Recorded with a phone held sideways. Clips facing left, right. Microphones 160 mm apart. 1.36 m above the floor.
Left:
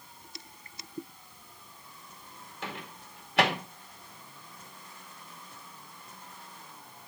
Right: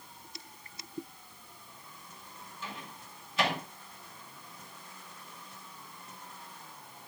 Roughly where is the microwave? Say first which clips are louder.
Left 4 dB; left.